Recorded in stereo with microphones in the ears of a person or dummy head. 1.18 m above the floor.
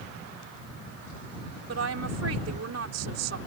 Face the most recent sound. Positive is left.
turn(degrees=-85)